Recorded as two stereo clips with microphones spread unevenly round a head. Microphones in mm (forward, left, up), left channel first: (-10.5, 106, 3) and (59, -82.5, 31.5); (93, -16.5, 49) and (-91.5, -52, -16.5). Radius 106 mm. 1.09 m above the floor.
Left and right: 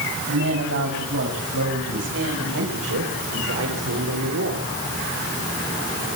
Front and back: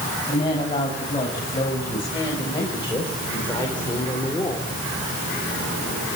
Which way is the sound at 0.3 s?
50° right.